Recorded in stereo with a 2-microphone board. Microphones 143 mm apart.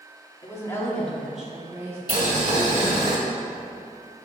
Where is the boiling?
40° right (ahead or behind), 1.8 m.